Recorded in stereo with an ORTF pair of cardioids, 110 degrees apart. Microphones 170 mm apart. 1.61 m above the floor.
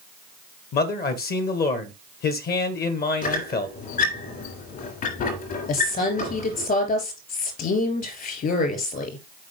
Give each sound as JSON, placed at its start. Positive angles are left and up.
{"t": 0.7, "sound": "a man speaking", "azimuth_deg": 65, "distance_m": 1.5}
{"t": 3.2, "sound": "a squeak", "azimuth_deg": 60, "distance_m": 3.0}
{"t": 5.7, "sound": "a woman speaking", "azimuth_deg": 60, "distance_m": 3.5}